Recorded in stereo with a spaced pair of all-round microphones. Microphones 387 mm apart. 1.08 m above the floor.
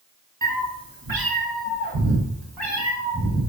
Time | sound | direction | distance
0.4 | a cat meowing | 55° right (ahead or behind) | 0.8 m